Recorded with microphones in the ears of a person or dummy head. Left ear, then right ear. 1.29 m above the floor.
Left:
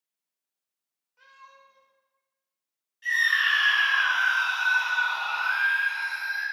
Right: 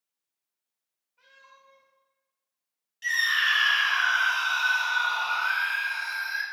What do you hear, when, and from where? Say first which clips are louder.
1.2 s a cat meowing: left 3 dB; 65° left (ahead or behind), 1.8 m
3.0 s a scream: left 1 dB; 45° right (ahead or behind), 1.3 m